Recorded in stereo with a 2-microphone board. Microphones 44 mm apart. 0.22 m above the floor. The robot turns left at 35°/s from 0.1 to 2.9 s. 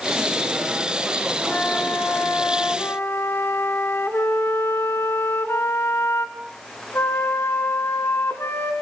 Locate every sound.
1.5 s a flute: 140° left, 2 m; by 8.7 s 90° left, 2 m